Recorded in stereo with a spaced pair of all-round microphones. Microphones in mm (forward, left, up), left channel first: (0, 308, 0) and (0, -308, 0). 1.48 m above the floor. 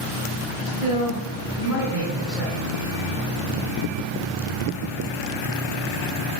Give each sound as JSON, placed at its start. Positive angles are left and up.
{"t": 0.7, "sound": "a man speaking", "side_deg": 65, "distance_m": 0.6}